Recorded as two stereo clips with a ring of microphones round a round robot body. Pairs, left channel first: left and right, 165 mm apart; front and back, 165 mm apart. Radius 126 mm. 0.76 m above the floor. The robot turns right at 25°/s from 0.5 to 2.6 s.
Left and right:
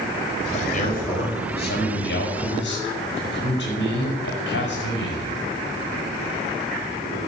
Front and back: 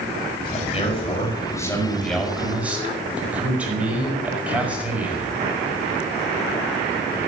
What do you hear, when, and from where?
0.5 s a man speaking: 45° left, 6 m; by 5.4 s 95° left, 6 m